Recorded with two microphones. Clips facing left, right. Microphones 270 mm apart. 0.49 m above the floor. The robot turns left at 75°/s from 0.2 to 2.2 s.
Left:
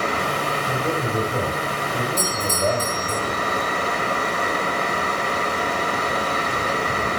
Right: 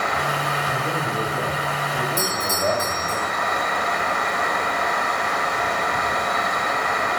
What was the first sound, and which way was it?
A man speaking, 145° left.